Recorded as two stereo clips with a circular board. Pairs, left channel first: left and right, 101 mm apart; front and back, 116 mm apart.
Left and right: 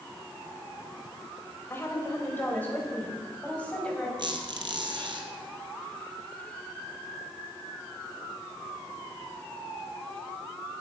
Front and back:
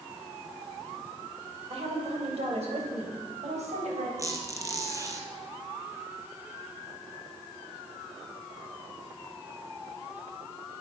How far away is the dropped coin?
I don't hear a dropped coin.